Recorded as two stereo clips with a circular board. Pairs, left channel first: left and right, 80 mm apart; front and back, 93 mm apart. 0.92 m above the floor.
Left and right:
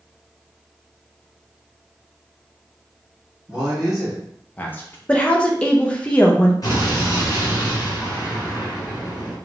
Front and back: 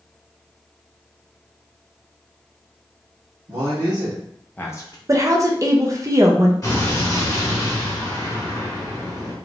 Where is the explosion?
50° left, 1.5 m.